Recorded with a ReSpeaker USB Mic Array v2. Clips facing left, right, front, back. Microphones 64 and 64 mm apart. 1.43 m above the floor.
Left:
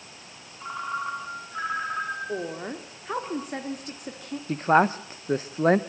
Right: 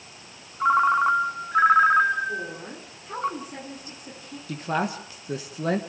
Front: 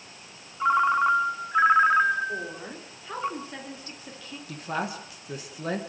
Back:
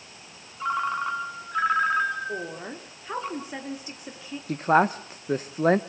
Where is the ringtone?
70° right, 1.5 m.